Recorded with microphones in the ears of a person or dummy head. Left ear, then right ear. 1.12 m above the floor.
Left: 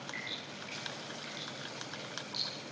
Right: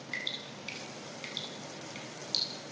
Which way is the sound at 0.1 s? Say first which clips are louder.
Right 7 dB; 85° right.